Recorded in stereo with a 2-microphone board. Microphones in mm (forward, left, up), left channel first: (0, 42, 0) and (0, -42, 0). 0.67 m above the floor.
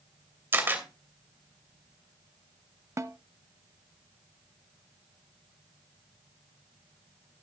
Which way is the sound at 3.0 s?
35° right (ahead or behind).